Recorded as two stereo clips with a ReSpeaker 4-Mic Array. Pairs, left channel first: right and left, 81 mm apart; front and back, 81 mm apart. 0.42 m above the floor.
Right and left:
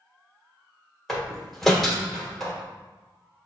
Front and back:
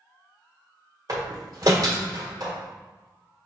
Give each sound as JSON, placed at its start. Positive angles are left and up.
{"t": 1.1, "sound": "a door slam", "azimuth_deg": -175, "distance_m": 1.2}